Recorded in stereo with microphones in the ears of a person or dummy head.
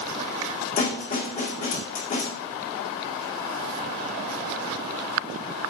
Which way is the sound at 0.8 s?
40° left (ahead or behind).